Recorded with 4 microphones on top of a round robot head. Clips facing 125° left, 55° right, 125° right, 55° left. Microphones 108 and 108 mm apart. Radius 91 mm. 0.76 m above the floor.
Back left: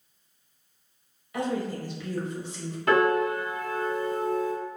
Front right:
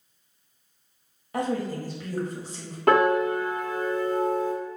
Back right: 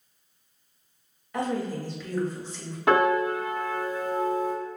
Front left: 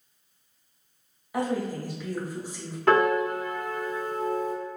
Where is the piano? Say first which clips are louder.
Front right 2 dB, even; 50° right, 1.5 m.